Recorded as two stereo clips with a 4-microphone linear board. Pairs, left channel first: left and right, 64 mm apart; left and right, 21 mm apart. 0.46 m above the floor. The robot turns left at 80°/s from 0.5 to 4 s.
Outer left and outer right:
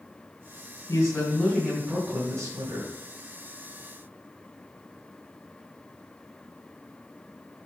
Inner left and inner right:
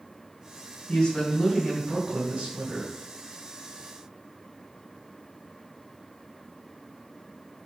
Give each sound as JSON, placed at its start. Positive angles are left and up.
{"t": 0.9, "sound": "a woman speaking", "azimuth_deg": 55, "distance_m": 2.5}